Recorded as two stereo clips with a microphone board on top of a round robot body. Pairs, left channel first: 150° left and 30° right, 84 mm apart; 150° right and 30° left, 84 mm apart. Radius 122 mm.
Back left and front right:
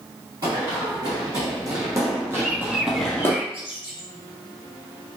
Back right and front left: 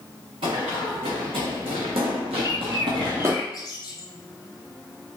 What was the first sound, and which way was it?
Running footsteps, 15° left.